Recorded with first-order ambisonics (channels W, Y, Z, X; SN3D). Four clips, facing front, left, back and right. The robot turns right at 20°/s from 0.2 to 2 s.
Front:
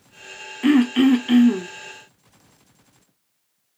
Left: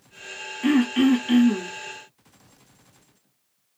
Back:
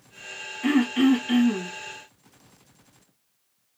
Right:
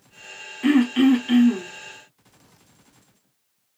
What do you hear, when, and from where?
0.6 s throat clearing: 10° right, 0.9 m; by 1.7 s 10° left, 0.9 m